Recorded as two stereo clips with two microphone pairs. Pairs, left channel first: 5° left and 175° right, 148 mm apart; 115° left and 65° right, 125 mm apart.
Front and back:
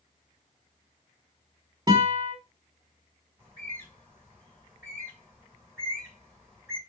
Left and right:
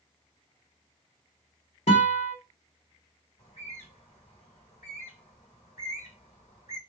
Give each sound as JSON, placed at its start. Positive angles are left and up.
{"t": 1.9, "sound": "a guitar", "azimuth_deg": 125, "distance_m": 1.5}
{"t": 3.4, "sound": "a bird", "azimuth_deg": 85, "distance_m": 3.0}